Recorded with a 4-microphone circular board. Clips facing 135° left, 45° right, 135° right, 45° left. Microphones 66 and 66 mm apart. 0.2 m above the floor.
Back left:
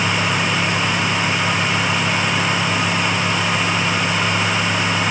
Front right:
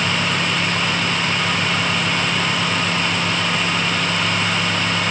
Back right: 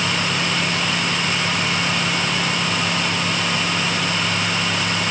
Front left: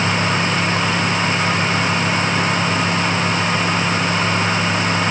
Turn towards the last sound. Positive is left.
No sound to turn to.